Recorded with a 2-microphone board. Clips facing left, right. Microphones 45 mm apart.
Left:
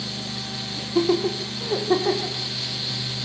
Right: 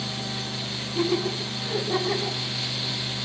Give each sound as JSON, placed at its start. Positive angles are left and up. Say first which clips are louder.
{"t": 0.8, "sound": "laughter", "louder": "left 5 dB", "side_deg": 55, "distance_m": 8.0}